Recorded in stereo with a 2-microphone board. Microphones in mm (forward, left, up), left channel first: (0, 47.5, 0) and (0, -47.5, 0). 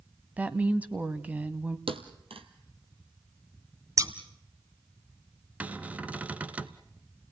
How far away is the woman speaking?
About 1.0 m.